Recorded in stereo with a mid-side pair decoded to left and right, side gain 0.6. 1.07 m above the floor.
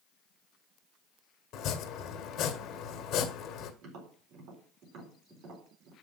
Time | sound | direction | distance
1.5 | chopping | 60° left | 1.8 m
3.8 | tapping | 70° right | 4 m